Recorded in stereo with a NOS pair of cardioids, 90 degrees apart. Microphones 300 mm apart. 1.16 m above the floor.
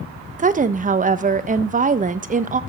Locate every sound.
0.4 s a woman speaking: 25° right, 1.3 m